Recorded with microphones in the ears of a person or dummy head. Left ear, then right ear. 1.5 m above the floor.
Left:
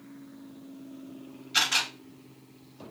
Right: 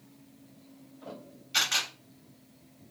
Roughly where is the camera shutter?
Centre.